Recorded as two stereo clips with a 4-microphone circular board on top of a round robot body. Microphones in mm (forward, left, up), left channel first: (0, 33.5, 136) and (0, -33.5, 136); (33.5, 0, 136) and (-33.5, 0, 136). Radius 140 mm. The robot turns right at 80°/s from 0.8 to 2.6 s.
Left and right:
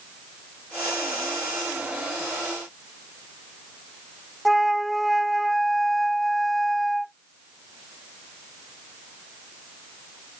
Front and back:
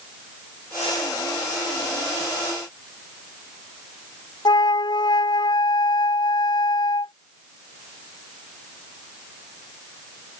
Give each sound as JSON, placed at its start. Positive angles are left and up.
{"t": 4.5, "sound": "a flute", "azimuth_deg": 0}